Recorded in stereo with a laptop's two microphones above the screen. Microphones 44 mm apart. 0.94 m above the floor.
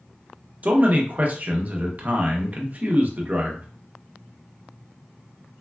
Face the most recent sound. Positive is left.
turn(degrees=-40)  # may be behind; listen again after turning